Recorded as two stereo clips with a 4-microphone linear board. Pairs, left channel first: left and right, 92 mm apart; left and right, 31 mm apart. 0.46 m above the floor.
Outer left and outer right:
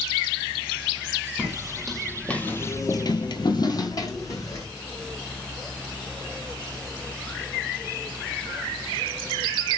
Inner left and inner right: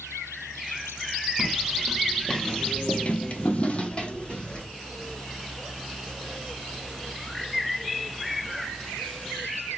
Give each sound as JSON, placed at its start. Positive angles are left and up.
{"t": 1.4, "sound": "footsteps", "side_deg": -5, "distance_m": 1.5}